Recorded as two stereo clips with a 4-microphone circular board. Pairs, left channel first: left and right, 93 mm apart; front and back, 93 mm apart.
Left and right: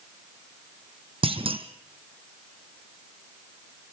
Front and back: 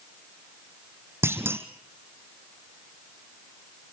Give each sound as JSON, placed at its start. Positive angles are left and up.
{"t": 1.2, "sound": "a clunk", "azimuth_deg": -115, "distance_m": 1.6}